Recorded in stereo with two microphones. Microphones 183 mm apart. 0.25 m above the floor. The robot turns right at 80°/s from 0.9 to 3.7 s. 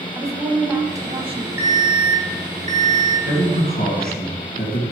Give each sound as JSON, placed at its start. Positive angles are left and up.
{"t": 0.1, "sound": "a woman speaking", "azimuth_deg": -155, "distance_m": 1.4}
{"t": 1.6, "sound": "an alarm", "azimuth_deg": -160, "distance_m": 3.0}
{"t": 3.2, "sound": "a man speaking", "azimuth_deg": 80, "distance_m": 2.5}